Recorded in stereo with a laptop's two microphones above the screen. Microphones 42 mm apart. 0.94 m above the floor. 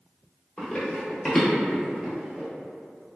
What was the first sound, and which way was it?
Running footsteps, 15° left (ahead or behind).